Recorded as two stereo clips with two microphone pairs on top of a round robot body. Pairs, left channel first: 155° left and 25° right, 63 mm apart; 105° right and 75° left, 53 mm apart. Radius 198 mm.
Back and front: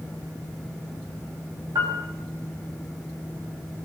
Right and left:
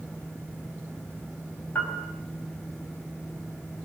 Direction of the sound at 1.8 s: 50° right.